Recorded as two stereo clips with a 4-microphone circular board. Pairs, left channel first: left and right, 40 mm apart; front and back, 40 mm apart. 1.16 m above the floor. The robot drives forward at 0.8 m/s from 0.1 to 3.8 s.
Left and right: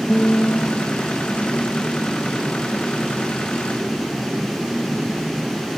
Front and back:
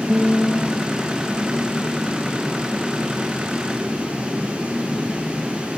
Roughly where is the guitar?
Behind left.